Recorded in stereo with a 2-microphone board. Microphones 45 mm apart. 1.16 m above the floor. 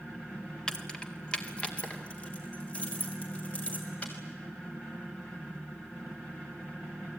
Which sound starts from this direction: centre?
Keys jangling, at 0.7 s.